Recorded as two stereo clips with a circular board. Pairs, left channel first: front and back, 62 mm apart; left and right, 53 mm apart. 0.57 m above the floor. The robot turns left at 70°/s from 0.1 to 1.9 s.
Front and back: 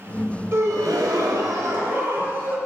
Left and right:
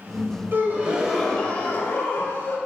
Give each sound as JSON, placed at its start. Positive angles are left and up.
{"t": 0.5, "sound": "a gasp", "azimuth_deg": -135, "distance_m": 0.5}